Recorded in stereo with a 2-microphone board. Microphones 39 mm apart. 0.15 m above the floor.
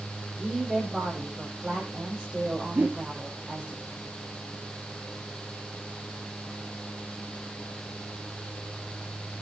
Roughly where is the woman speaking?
Centre.